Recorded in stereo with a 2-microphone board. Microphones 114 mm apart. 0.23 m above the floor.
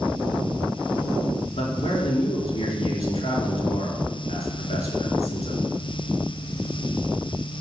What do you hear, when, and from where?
1.6 s a man speaking: 65° left (ahead or behind), 4 m